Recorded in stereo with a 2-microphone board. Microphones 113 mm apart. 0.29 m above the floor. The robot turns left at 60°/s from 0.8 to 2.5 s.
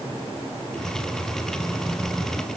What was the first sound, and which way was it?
Only background noise.